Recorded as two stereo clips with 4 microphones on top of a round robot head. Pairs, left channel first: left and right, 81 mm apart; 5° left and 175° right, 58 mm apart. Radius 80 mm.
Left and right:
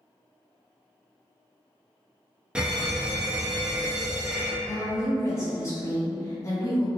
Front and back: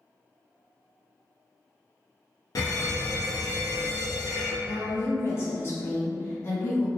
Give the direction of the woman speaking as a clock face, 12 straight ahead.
10 o'clock.